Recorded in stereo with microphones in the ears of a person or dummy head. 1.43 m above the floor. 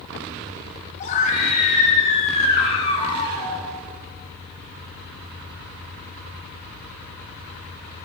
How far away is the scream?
About 9.5 m.